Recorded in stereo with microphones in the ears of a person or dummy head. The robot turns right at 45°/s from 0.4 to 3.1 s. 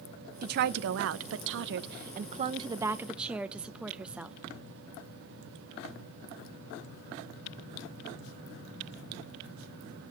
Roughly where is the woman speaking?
Behind right.